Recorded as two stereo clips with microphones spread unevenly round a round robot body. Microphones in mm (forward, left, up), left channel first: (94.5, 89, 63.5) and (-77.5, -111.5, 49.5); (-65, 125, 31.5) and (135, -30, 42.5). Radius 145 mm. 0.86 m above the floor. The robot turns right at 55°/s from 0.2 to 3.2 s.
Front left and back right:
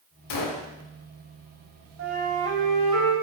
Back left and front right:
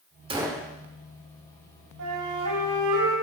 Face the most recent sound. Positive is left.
turn(degrees=-25)